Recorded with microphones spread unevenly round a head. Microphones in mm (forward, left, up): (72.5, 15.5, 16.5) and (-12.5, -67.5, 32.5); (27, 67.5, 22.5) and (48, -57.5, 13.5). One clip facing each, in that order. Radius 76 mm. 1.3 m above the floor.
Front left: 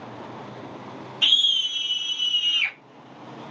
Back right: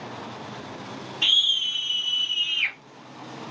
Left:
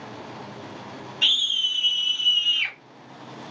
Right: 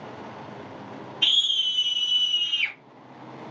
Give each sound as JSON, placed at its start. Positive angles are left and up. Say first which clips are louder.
{"t": 1.2, "sound": "a scream", "louder": "front left 1 dB, left 1 dB", "azimuth_deg": 120, "distance_m": 3.5}